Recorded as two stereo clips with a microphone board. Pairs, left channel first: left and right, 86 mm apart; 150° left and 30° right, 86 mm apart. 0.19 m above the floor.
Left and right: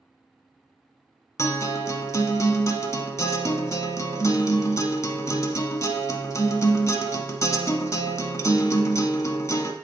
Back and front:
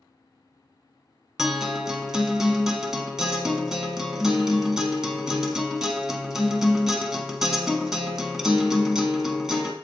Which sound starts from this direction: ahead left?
A guitar, at 1.4 s.